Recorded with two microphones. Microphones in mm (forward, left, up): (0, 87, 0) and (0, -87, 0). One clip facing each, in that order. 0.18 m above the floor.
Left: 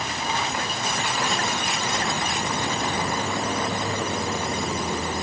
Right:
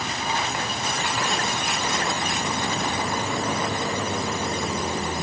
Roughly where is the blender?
I don't hear a blender.